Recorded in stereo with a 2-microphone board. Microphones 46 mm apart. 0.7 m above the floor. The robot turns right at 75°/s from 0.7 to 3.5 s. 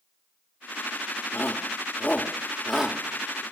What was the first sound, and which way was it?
A shout, 50° left (ahead or behind).